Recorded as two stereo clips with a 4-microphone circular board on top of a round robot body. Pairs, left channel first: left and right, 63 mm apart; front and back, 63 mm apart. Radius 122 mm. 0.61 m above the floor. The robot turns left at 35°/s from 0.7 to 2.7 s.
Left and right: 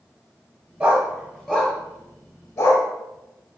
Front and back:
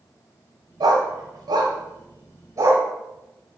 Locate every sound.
0.8 s a dog barking: 165° right, 1.0 m; by 2.9 s 130° left, 1.0 m